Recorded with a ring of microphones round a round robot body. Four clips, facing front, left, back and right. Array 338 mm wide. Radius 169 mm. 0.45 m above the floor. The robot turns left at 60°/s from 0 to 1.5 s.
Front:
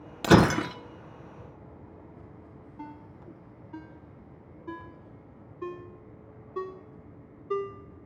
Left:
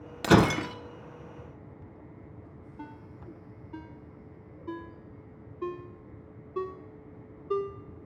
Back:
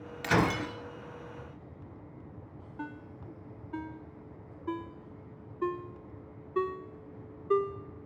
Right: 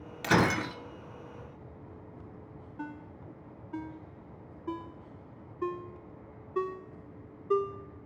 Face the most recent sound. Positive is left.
turn(degrees=-155)